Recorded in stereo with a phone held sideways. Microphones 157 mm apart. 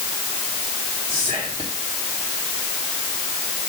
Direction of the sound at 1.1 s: 35° right (ahead or behind).